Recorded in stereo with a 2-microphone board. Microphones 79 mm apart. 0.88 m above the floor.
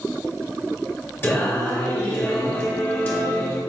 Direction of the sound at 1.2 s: 30° left (ahead or behind).